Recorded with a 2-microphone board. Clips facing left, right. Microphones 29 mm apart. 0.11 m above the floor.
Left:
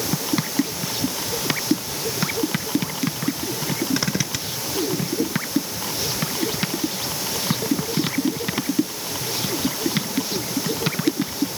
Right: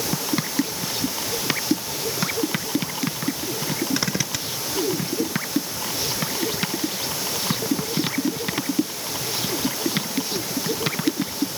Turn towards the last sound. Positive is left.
No sound to turn to.